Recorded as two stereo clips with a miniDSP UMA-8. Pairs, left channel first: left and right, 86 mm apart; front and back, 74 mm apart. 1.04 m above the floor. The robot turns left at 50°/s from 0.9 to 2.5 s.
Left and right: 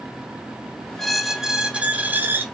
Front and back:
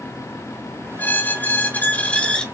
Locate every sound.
1.0 s a squeak: 10° left, 0.7 m; by 2.5 s 65° right, 0.7 m